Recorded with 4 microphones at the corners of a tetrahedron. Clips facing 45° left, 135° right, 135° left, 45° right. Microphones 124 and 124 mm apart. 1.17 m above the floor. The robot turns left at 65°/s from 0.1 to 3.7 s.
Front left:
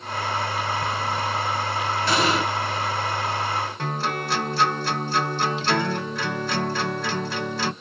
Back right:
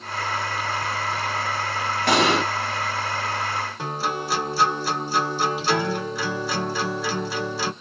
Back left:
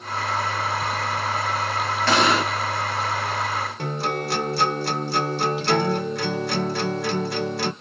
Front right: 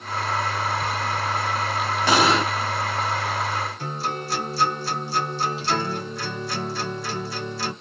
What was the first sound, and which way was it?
An explosion, 120° right.